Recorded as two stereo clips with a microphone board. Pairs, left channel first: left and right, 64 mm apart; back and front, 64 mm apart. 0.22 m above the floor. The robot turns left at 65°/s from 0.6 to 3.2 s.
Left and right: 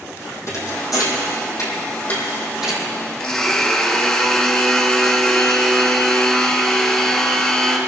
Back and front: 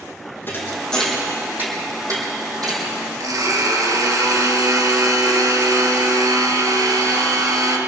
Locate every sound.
0.5 s a thud: 125° left, 3.5 m; by 2.9 s 25° right, 3.5 m
3.2 s a blender: 5° left, 2.5 m